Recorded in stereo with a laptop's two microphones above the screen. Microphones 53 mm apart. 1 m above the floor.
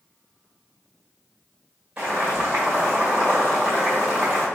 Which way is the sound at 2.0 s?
25° right (ahead or behind).